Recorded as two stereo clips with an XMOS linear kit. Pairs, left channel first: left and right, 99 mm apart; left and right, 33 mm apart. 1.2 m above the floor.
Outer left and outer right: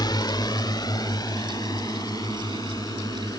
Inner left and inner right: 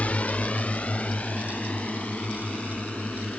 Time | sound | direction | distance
0.0 | a drone | 45° left (ahead or behind) | ?